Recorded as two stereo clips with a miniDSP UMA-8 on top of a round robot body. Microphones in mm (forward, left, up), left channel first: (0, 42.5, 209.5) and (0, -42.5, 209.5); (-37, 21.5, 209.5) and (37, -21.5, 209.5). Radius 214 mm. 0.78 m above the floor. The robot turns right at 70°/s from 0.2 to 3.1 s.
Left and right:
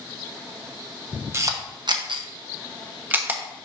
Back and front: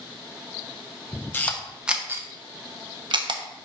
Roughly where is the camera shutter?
Behind right.